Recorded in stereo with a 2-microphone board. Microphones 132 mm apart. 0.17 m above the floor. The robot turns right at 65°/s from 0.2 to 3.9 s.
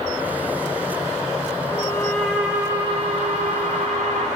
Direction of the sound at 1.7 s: 140° left.